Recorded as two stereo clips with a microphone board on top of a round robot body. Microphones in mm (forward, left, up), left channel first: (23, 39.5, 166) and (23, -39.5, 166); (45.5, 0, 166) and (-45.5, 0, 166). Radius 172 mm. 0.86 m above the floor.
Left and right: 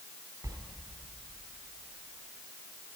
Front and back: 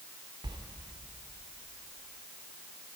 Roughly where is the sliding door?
Behind right.